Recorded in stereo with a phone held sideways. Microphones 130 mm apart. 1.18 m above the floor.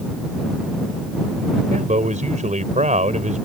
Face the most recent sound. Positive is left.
turn(degrees=-70)  # may be behind; listen again after turning